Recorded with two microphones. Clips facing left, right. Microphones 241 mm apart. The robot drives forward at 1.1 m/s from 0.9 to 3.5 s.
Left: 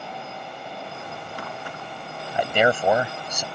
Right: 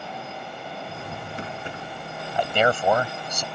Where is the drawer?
20° right (ahead or behind); by 1.9 s 25° right (ahead or behind).